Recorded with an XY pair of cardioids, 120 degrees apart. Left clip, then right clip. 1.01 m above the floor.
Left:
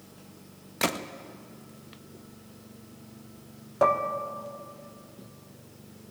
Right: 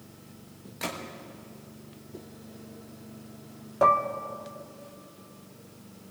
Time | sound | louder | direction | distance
0.8 | a gunshot | left 6 dB | 55° left | 1.0 m
3.8 | dishes clattering | right 2 dB | 5° left | 1.2 m